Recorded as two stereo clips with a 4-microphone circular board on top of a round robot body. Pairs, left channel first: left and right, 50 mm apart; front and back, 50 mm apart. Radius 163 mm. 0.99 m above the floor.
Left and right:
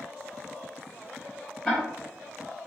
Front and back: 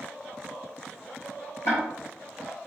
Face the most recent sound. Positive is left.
turn(degrees=5)